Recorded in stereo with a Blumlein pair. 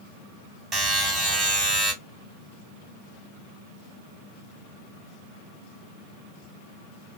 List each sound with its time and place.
0.7 s a buzzer: 20° right, 1.7 m